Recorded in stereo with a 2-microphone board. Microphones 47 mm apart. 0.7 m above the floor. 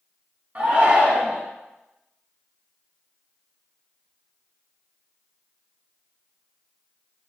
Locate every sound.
0.6 s a shout: 30° right (ahead or behind), 1.2 m